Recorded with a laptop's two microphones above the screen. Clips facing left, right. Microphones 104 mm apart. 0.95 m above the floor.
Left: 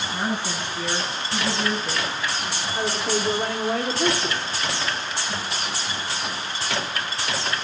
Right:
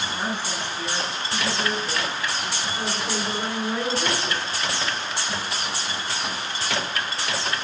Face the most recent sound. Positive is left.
turn(degrees=75)  # may be behind; listen again after turning